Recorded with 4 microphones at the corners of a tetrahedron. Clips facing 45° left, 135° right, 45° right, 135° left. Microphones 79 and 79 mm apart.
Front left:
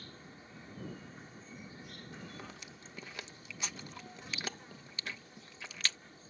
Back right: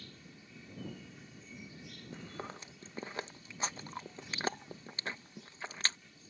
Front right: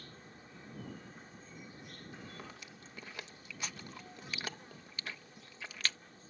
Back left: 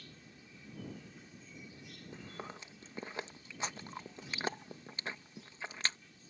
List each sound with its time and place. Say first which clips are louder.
0.0 s an insect: front left 2 dB, front right 3 dB; straight ahead
2.1 s chewing: back right 5 dB, back left 5 dB; 175° right